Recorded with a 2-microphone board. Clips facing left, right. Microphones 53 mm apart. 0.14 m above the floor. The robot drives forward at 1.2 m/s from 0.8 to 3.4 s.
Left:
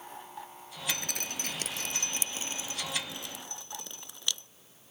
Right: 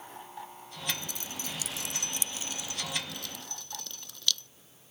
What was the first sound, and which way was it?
Dripping, 60° left (ahead or behind).